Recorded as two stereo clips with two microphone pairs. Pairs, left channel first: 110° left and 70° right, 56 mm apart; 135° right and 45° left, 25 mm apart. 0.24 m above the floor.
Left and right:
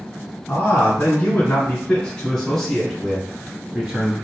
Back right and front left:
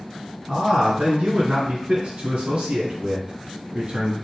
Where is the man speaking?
75° left, 2 m; by 4.1 s 5° right, 1.6 m.